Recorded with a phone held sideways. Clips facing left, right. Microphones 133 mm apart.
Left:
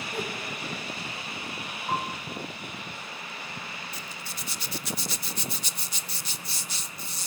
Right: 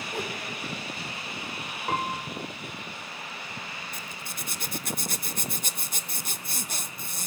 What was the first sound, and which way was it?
A whoosh, 20° right (ahead or behind).